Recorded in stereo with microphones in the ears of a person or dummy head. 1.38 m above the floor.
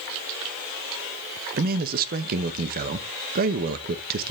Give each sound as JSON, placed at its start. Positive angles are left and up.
{"t": 1.6, "sound": "a man speaking", "side_deg": -45, "distance_m": 0.8}